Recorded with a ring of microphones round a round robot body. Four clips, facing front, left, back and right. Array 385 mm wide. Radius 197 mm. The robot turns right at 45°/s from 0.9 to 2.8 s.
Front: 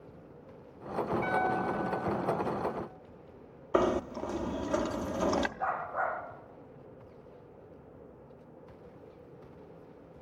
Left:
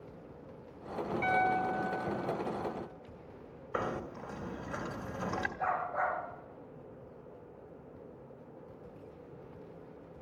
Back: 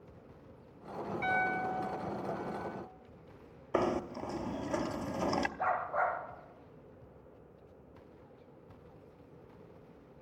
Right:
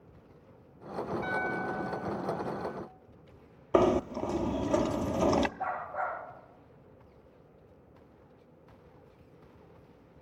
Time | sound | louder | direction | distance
1.2 | a piano | left 7 dB, even | 115° left | 6 m
3.7 | knocking | right 12 dB, front 4 dB | 85° right | 0.7 m
5.6 | a dog barking | left 1 dB, back 1 dB | 175° left | 9 m